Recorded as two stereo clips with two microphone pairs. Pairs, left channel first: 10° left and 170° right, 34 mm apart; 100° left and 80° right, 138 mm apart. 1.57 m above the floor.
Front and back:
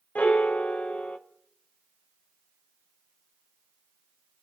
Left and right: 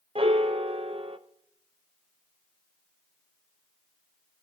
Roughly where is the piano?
Ahead right.